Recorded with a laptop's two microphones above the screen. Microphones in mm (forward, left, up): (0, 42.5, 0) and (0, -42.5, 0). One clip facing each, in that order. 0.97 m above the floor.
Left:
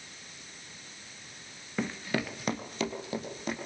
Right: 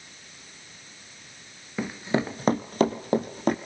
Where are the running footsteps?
5° right (ahead or behind), 0.9 m; by 3.6 s 50° right (ahead or behind), 2.5 m.